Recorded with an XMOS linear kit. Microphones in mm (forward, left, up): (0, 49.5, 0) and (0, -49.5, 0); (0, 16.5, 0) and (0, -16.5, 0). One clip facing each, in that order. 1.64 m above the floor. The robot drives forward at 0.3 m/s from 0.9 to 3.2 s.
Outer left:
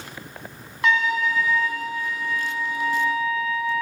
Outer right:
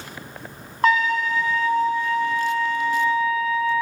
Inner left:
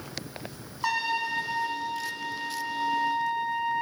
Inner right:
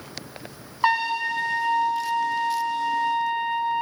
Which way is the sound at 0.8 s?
40° right (ahead or behind).